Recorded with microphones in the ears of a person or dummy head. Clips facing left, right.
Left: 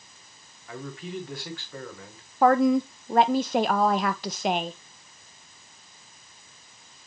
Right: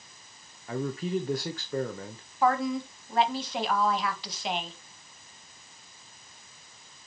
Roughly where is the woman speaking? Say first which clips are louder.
Left 7 dB; left.